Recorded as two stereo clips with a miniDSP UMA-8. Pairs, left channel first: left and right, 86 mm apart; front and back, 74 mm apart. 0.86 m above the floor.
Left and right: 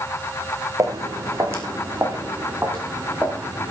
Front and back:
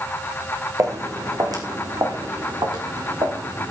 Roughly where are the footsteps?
Behind right.